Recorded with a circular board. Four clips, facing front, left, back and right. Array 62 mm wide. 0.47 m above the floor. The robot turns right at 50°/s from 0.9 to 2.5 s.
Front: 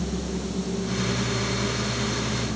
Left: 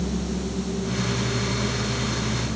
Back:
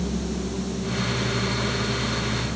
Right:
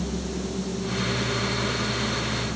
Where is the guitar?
No guitar in this recording.